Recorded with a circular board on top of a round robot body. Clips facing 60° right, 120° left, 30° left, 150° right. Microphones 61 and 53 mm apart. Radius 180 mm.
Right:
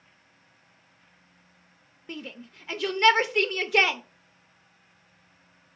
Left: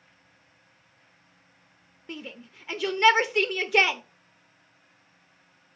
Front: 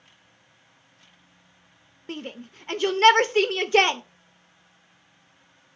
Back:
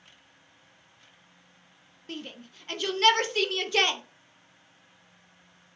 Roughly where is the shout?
Ahead left.